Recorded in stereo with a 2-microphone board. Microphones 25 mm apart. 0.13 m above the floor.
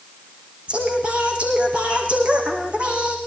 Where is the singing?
45° right (ahead or behind), 6 m.